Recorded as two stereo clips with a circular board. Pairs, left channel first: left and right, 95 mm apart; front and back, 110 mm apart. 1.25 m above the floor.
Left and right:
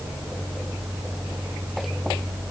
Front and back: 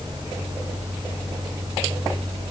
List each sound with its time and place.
Only background noise.